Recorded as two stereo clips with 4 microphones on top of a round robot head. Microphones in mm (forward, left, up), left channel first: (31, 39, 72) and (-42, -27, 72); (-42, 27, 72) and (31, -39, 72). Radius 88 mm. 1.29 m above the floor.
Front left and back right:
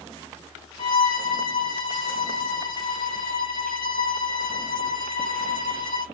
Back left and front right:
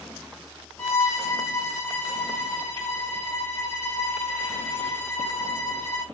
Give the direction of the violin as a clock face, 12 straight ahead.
10 o'clock.